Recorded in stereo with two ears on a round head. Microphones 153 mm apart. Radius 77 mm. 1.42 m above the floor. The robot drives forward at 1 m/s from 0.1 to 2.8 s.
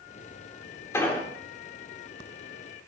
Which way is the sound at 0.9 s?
15° left (ahead or behind).